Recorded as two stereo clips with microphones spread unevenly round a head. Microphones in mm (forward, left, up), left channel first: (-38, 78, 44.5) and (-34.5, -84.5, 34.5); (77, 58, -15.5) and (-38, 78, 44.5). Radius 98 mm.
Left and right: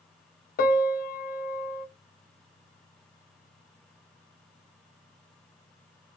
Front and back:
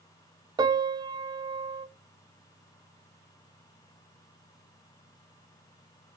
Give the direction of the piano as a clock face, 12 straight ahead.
8 o'clock.